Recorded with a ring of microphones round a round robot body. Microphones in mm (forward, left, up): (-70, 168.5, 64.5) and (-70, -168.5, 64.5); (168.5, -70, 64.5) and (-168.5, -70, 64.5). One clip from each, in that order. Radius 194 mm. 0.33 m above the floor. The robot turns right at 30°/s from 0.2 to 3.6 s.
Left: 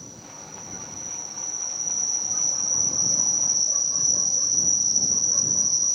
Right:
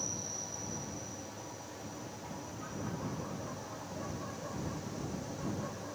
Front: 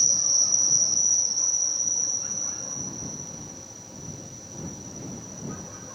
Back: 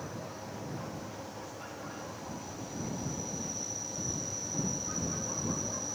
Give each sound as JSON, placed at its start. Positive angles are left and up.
{"t": 0.0, "sound": "an insect", "azimuth_deg": -5}